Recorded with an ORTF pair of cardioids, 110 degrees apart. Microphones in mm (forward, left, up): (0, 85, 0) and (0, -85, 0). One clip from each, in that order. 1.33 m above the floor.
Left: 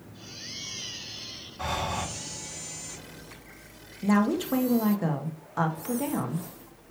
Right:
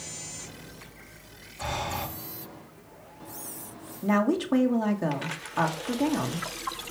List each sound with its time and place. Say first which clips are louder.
1.6 s breathing: left 1 dB; 25° left, 2.5 m
4.0 s a woman speaking: right 1 dB; 5° right, 2.0 m